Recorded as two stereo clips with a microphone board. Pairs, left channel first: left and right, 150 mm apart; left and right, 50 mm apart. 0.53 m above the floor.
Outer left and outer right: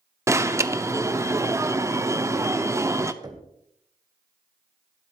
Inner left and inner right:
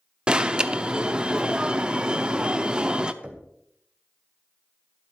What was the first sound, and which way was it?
An alarm, 20° right (ahead or behind).